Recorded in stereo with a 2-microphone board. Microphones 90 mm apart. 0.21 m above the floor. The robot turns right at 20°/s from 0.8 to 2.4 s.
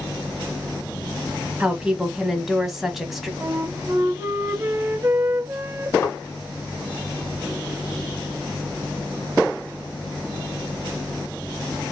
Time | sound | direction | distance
1.6 | a woman speaking | 10° right (ahead or behind) | 1.2 m
3.4 | a flute | 30° right (ahead or behind) | 0.6 m
6.0 | a thud | 30° left (ahead or behind) | 1.3 m